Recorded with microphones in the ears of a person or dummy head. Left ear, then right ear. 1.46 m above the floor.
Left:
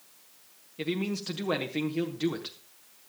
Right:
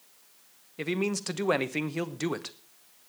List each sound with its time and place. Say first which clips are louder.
0.8 s a man speaking: right 2 dB; 40° right (ahead or behind), 0.9 m